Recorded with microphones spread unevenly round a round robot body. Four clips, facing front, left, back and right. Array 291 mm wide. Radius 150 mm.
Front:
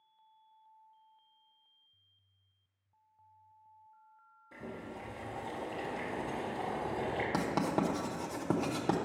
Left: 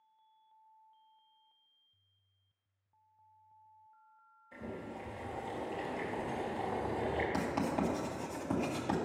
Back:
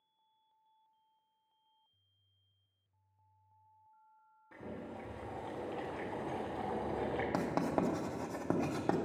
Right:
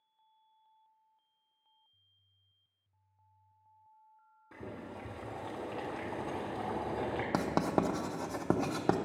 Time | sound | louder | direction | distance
4.5 | boiling | left 1 dB, front 1 dB | 90° right | 2.5 m
7.3 | writing | right 3 dB, front 2 dB | 70° right | 0.9 m